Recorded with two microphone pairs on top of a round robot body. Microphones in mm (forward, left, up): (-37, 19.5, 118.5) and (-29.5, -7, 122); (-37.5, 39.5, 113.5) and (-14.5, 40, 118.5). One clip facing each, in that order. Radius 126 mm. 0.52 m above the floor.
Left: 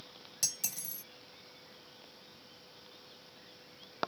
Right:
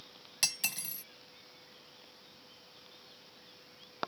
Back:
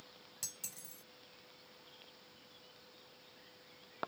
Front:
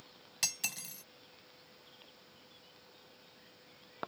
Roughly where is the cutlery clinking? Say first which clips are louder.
Right 4 dB, front 12 dB; ahead right.